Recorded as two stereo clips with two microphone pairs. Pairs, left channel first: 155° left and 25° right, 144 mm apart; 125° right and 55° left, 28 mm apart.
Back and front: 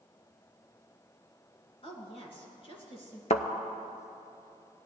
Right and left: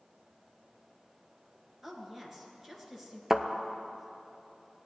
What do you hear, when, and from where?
1.8 s a woman speaking: 135° left, 2.0 m
3.3 s a thud: 130° left, 0.6 m